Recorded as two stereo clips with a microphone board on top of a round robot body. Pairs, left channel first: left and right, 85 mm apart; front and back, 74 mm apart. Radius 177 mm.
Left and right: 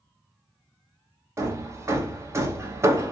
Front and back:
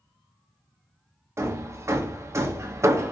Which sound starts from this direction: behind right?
Hammering, at 1.4 s.